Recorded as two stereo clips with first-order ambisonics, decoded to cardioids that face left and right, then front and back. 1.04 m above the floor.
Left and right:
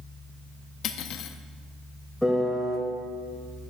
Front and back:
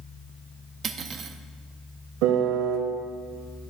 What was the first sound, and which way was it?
Cutlery clinking, 125° left.